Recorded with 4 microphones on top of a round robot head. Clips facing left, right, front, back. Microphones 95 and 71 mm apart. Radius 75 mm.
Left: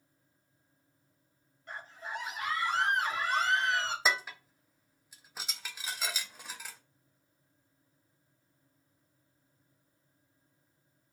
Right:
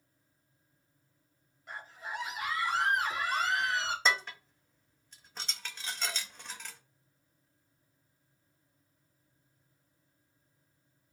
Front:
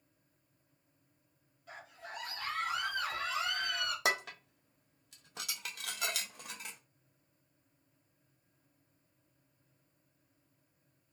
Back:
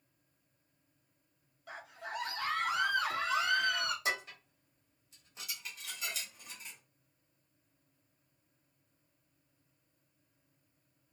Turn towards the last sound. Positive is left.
turn(degrees=10)